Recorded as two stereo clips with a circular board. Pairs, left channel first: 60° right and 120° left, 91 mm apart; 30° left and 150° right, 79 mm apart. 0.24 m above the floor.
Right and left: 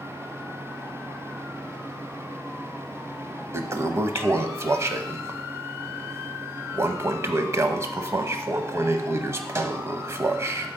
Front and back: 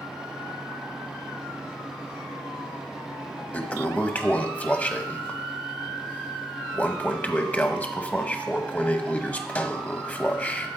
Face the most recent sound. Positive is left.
turn(degrees=90)